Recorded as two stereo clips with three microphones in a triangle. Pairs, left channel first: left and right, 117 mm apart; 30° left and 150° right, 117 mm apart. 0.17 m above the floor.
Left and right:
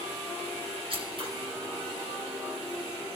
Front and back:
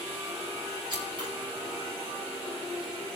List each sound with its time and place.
0.9 s scissors: 115° right, 2.5 m